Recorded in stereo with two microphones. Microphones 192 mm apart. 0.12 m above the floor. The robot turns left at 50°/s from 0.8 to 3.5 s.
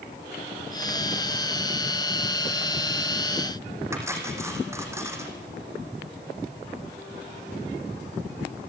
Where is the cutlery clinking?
15° right (ahead or behind), 4 m.